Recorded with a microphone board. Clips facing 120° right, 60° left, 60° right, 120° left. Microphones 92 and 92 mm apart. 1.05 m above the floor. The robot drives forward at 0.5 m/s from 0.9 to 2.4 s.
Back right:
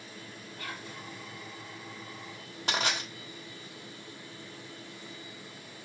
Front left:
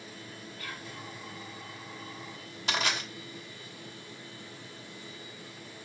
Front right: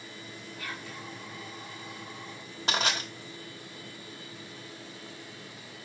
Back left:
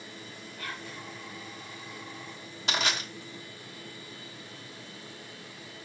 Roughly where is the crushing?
Right.